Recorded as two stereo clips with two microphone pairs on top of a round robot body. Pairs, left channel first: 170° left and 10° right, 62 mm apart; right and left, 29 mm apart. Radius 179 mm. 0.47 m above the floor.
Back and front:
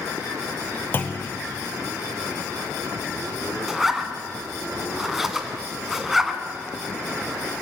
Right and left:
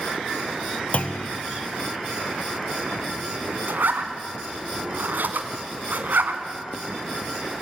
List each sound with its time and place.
0.9 s a clunk: 135° right, 0.7 m
3.7 s a zipper: 75° left, 1.8 m